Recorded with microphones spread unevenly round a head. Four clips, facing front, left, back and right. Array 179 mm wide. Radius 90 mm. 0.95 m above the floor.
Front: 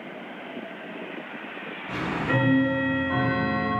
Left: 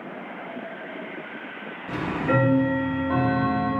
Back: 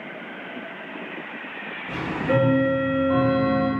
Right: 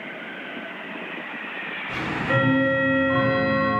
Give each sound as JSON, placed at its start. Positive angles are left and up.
{"t": 1.9, "sound": "ticking", "azimuth_deg": 125, "distance_m": 1.1}